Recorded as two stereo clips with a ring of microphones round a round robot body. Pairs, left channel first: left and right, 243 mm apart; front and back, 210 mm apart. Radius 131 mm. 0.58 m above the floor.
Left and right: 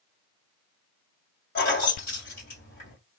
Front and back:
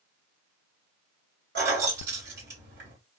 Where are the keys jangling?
145° left, 1.7 m.